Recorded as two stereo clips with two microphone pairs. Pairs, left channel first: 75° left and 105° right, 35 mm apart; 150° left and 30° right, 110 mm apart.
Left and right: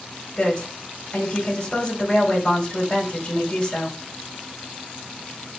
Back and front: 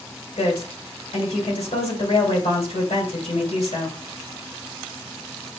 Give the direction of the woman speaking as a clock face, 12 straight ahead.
7 o'clock.